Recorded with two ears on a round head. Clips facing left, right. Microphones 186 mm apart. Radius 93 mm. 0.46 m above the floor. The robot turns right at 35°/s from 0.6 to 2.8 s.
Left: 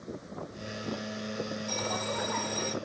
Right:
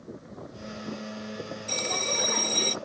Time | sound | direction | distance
1.7 | a bell | 135° right | ?